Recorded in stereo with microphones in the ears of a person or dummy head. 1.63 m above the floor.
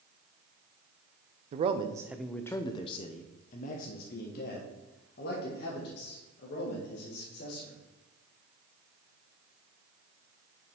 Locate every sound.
1.5 s a man speaking: 40° right (ahead or behind), 0.5 m; by 7.8 s 65° left (ahead or behind), 3 m